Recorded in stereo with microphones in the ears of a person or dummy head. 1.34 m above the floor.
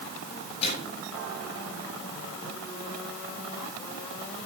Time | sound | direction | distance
0.6 | a microwave | 30° left (ahead or behind) | 5.5 m